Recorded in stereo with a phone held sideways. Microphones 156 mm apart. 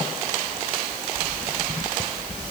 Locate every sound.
Only background noise.